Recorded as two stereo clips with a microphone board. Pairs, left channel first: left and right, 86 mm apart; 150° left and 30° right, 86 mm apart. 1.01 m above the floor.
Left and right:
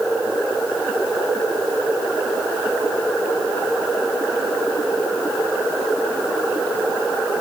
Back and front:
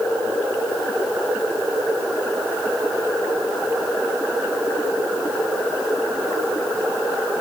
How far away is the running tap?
I don't hear a running tap.